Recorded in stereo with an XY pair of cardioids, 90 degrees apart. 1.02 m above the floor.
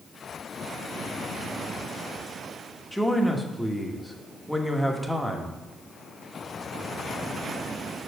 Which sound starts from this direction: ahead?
A man speaking, at 2.9 s.